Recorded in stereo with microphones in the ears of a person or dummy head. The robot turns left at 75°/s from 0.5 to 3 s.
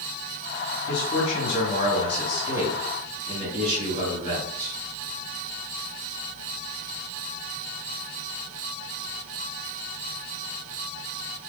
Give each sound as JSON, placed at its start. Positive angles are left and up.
{"t": 0.9, "sound": "a man speaking", "azimuth_deg": 115, "distance_m": 2.0}